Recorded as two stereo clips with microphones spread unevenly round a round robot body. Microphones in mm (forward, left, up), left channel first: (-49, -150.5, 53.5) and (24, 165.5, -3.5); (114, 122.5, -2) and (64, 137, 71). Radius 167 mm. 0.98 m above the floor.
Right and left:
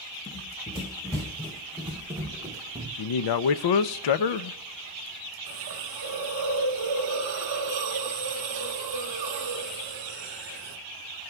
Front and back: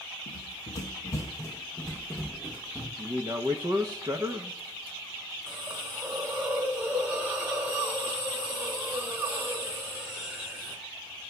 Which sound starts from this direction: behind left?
A hiss, at 5.5 s.